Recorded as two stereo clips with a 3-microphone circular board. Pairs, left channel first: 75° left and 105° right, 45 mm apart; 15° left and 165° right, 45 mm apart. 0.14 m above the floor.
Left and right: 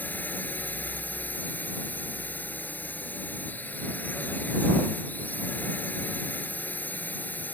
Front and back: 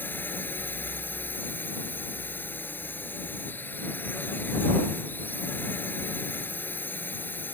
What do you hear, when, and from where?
0.0 s a drone: 40° left